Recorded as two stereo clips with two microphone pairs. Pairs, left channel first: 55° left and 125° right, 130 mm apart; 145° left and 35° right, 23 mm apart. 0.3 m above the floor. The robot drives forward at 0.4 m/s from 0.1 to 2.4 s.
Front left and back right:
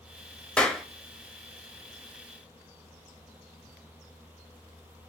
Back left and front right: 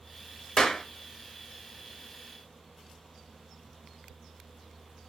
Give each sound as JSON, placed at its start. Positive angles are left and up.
{"t": 0.6, "sound": "a clap", "azimuth_deg": 130, "distance_m": 0.7}